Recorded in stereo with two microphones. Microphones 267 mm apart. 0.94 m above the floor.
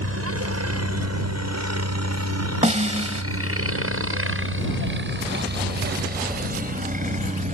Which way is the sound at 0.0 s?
60° right (ahead or behind).